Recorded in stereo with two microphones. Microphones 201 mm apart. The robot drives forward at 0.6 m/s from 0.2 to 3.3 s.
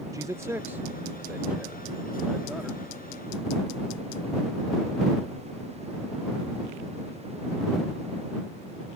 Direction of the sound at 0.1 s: 15° right (ahead or behind).